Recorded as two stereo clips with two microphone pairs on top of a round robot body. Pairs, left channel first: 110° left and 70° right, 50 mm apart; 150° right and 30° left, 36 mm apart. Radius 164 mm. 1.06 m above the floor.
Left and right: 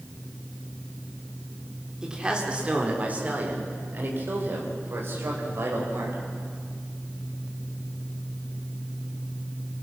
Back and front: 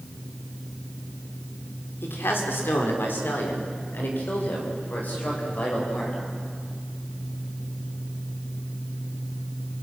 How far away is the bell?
No bell in this recording.